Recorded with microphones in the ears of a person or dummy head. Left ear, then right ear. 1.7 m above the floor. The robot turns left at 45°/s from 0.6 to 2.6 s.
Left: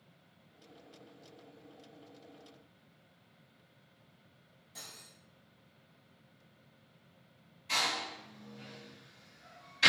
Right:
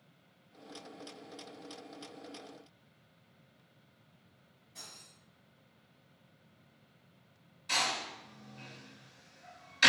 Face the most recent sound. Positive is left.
turn(degrees=-50)  # may be behind; listen again after turning